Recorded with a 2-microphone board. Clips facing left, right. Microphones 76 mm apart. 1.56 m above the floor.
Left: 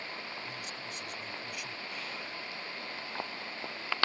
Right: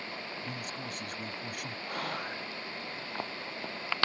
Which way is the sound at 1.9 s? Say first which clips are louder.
Right 6 dB; 55° right (ahead or behind).